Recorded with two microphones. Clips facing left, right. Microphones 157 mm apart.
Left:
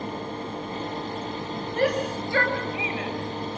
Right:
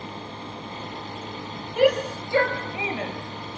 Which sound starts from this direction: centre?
A shout, at 1.8 s.